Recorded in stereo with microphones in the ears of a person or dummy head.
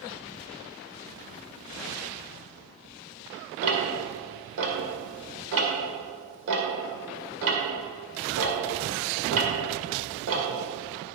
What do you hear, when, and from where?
3.6 s ticking: 75° right (ahead or behind), 2 m